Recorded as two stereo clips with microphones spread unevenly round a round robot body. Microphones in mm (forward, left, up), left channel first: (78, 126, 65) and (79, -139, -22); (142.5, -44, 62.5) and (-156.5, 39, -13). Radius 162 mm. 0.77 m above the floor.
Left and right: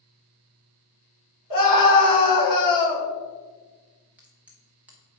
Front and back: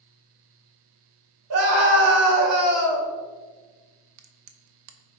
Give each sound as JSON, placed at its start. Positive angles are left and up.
{"t": 1.5, "sound": "a scream", "azimuth_deg": 125, "distance_m": 2.5}
{"t": 4.2, "sound": "a crack", "azimuth_deg": -170, "distance_m": 0.8}